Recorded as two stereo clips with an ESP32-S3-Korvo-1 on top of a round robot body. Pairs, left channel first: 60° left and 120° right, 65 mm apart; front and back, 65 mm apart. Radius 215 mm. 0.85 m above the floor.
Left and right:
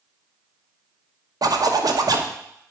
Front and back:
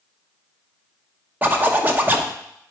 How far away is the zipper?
About 1.1 m.